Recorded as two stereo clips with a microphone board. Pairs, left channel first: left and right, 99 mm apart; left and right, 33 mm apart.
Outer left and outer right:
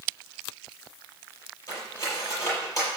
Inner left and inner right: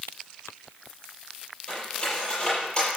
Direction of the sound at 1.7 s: 30° left (ahead or behind).